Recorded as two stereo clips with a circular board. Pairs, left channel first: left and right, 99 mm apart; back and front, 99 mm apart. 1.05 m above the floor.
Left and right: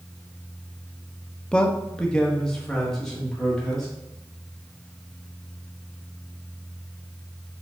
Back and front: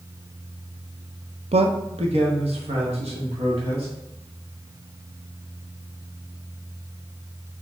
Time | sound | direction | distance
1.5 | a man speaking | 10° left | 0.5 m